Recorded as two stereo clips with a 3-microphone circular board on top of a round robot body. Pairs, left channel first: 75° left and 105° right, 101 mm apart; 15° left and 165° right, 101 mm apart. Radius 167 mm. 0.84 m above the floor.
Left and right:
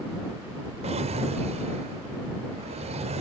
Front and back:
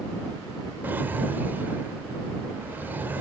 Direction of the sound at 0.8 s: 90° right.